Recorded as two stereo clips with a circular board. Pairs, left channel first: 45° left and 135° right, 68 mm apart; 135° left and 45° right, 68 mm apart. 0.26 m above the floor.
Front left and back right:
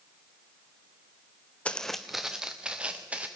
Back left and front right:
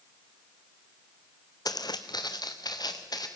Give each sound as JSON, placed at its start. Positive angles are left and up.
{"t": 1.6, "sound": "footsteps", "azimuth_deg": 115, "distance_m": 0.9}